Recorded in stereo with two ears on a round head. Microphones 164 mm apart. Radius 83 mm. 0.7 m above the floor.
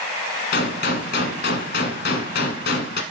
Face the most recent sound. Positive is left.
turn(degrees=55)  # may be behind; listen again after turning